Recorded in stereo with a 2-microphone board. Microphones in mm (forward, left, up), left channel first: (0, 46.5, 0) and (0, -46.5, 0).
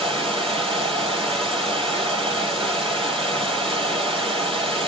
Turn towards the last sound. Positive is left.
turn(degrees=-70)  # may be behind; listen again after turning